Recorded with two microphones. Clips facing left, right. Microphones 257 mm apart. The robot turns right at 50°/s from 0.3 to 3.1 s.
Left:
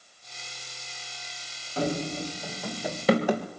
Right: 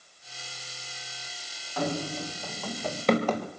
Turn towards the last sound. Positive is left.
turn(degrees=20)  # may be behind; listen again after turning